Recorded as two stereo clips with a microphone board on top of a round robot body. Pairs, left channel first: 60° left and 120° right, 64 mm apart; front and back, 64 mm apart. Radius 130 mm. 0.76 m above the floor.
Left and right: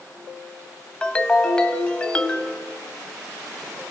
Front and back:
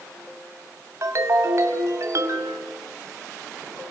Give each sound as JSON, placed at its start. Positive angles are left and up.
{"t": 1.0, "sound": "a ringtone", "azimuth_deg": 135, "distance_m": 1.7}